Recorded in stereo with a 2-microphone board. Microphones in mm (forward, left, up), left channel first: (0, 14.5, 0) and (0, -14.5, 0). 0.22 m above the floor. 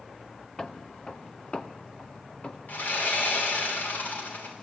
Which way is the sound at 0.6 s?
20° left (ahead or behind).